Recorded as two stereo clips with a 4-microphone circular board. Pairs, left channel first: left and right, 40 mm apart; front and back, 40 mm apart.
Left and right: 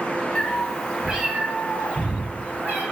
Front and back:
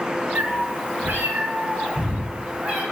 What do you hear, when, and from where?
0.3 s a cat meowing: 155° left, 1.4 m; by 2.8 s 125° right, 3 m